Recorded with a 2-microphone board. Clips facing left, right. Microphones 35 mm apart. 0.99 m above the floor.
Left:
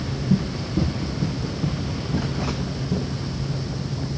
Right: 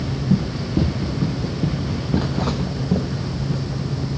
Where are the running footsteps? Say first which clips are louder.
Right 2 dB; 25° right (ahead or behind), 1.8 m; by 3.6 s 70° right (ahead or behind), 2.5 m.